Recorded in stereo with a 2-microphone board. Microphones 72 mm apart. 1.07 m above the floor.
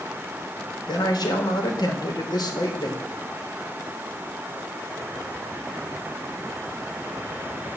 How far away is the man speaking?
About 3.5 m.